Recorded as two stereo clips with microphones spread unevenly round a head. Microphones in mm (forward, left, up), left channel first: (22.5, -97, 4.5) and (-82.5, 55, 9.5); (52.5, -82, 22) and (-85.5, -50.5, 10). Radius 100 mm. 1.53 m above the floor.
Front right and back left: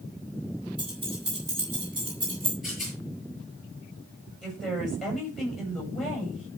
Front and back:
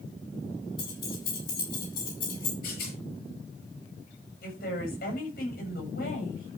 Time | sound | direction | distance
0.8 | keys jangling | 55° left | 8 m
2.6 | a rattle | 35° left | 8 m
4.4 | a woman speaking | 35° left | 7.5 m